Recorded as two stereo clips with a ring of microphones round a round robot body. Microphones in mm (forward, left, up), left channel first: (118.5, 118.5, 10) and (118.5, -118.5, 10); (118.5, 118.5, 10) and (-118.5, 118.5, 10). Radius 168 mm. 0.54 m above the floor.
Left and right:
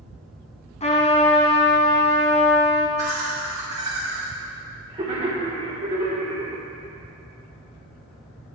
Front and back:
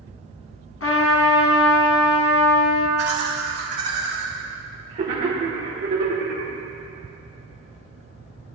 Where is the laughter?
150° right, 1.6 m.